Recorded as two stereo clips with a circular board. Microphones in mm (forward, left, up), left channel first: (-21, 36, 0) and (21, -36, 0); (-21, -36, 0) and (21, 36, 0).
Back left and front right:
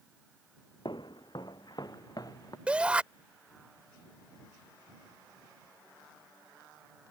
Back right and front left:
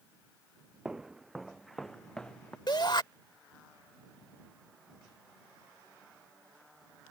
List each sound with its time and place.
0.8 s footsteps: 140° left; by 2.6 s 160° left
2.7 s a shout: 135° right